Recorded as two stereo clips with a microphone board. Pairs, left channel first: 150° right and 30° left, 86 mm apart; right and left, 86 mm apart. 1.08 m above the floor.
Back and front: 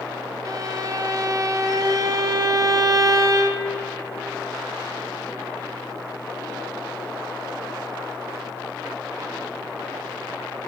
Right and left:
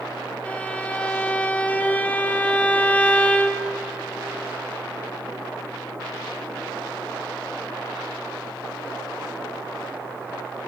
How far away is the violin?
About 0.7 m.